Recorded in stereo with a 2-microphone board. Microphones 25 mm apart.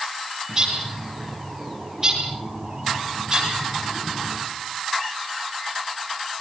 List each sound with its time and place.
0.5 s a bird: 25° right (ahead or behind), 9.5 m